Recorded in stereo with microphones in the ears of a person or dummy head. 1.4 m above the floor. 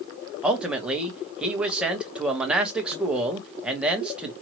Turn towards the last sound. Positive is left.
turn(degrees=-5)  # may be behind; listen again after turning